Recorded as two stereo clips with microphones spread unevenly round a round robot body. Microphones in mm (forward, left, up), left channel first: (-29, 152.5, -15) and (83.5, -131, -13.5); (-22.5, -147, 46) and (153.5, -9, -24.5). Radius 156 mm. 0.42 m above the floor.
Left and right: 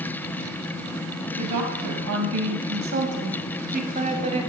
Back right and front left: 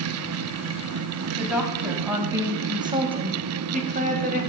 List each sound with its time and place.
1.4 s a woman speaking: 45° right, 2.5 m; by 4.5 s 5° left, 2.5 m